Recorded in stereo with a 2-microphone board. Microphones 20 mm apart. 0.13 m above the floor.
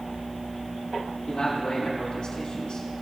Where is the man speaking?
55° left (ahead or behind), 3 m.